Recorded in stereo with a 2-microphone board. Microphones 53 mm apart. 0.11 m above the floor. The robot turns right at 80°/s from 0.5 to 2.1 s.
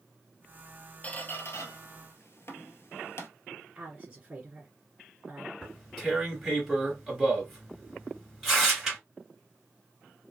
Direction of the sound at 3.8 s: 15° right (ahead or behind).